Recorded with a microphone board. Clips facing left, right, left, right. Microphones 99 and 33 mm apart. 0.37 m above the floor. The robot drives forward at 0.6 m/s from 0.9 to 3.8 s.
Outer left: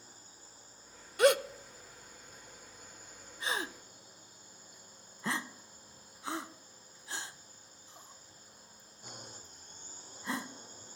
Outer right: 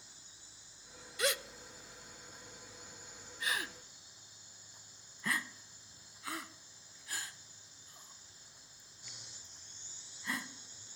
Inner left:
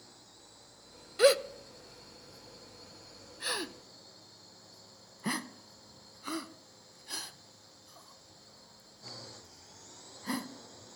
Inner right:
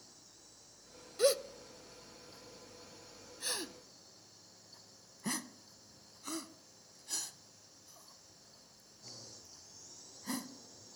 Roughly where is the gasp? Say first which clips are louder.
Outer left 11 dB, inner left 6 dB; left.